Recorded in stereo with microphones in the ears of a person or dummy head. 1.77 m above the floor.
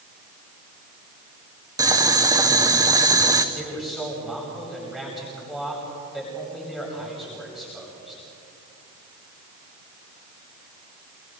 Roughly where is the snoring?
I don't hear snoring.